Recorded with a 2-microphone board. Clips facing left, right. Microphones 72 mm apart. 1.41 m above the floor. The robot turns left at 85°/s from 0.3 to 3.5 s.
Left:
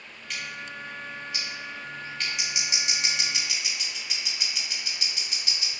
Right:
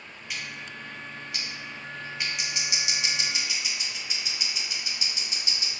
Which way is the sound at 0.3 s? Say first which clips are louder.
Left 2 dB; 5° right (ahead or behind).